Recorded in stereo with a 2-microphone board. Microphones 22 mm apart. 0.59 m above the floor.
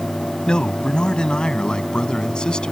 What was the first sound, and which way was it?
A man speaking, 40° left (ahead or behind).